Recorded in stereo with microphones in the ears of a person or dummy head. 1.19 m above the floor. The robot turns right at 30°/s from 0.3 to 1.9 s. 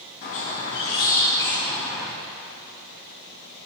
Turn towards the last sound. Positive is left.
turn(degrees=180)